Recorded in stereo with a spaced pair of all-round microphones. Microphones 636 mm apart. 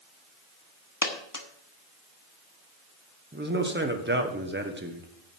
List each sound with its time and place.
1.0 s a dropped coin: 30° left (ahead or behind), 1.2 m
3.3 s a man speaking: 15° right (ahead or behind), 1.4 m